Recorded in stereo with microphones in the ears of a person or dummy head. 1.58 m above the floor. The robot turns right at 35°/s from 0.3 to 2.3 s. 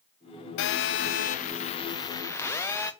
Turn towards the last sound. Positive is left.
turn(degrees=165)